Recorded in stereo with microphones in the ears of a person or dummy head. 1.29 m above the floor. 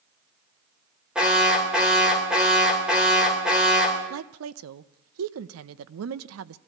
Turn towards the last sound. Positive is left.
turn(degrees=-80)